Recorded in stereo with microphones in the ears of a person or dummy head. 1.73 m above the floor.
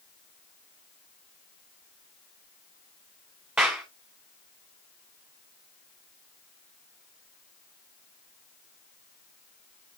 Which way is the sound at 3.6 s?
5° right (ahead or behind).